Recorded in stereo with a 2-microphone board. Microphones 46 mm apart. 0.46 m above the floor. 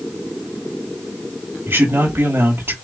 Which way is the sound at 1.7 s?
55° right (ahead or behind).